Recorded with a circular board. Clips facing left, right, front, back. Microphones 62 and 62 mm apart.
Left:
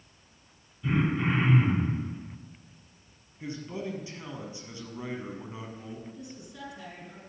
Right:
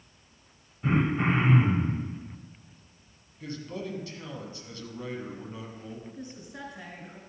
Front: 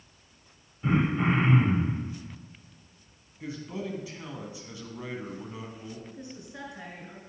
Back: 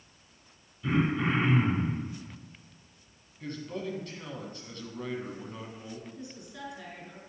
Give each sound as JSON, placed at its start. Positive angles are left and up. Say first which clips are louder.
{"t": 0.8, "sound": "throat clearing", "louder": "right 2 dB, front 2 dB", "azimuth_deg": -50, "distance_m": 2.0}
{"t": 3.4, "sound": "a man speaking", "louder": "left 1 dB, even", "azimuth_deg": 65, "distance_m": 1.3}
{"t": 6.1, "sound": "a woman speaking", "louder": "right 2 dB, front 2 dB", "azimuth_deg": -55, "distance_m": 2.5}